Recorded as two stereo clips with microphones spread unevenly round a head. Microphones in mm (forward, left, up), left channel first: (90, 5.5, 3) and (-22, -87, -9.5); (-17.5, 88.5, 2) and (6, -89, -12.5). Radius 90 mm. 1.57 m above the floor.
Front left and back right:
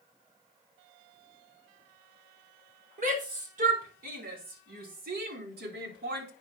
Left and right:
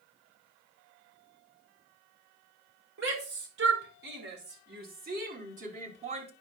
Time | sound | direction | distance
3.0 | a shout | 110° right | 5.5 m